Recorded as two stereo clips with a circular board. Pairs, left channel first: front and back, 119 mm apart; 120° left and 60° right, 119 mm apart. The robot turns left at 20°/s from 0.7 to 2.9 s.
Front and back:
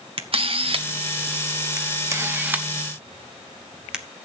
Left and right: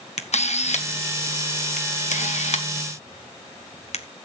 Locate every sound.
0.2 s a camera shutter: 140° left, 1.2 m; by 4.0 s 95° left, 1.2 m